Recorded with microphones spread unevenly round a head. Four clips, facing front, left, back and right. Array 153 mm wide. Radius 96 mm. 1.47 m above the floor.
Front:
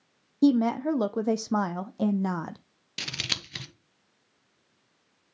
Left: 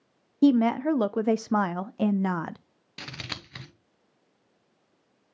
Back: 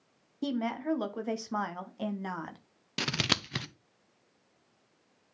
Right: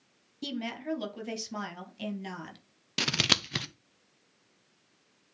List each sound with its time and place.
0.4 s a woman speaking: 45° left, 0.6 m
3.0 s scissors: 110° right, 0.9 m